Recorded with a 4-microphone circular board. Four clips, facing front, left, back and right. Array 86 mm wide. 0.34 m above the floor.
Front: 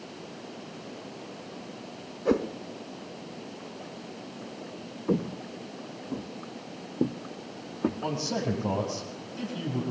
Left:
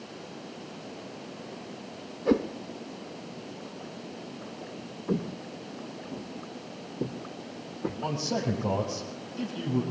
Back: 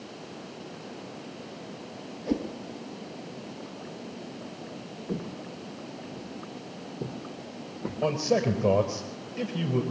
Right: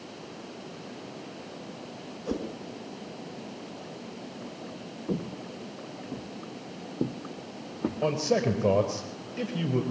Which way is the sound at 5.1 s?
10° left.